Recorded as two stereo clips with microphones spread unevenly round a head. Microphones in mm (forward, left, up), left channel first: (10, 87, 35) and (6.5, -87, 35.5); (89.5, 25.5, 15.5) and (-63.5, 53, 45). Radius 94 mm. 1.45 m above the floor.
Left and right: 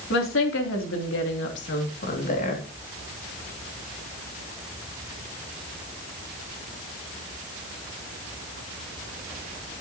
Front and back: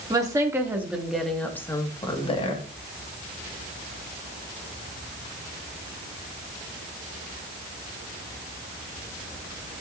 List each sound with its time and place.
0.1 s a woman speaking: 100° left, 3.5 m; by 2.7 s 35° left, 2.5 m